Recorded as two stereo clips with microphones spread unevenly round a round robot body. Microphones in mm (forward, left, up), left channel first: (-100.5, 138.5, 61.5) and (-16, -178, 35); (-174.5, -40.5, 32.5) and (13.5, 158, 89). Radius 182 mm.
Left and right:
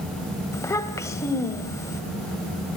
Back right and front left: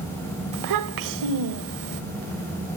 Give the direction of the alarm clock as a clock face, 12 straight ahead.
No alarm clock in this recording.